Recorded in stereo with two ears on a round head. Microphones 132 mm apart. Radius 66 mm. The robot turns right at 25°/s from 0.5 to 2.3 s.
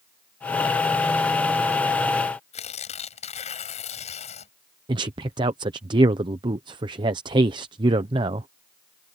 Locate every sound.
2.5 s tearing paper: 45° left (ahead or behind)
4.9 s a man speaking: 30° right (ahead or behind)